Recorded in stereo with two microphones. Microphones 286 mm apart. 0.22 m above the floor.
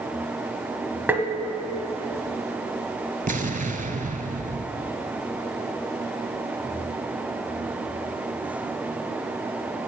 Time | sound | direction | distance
1.1 | tapping | 5° right (ahead or behind) | 1.0 m
3.3 | an explosion | 30° right (ahead or behind) | 0.9 m